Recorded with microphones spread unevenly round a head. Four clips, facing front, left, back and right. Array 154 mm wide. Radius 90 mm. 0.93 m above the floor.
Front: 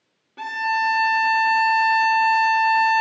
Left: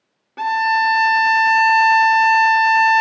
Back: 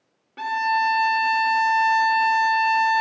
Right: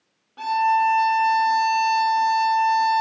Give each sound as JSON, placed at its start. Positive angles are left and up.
{"t": 0.4, "sound": "a violin", "azimuth_deg": 100, "distance_m": 0.9}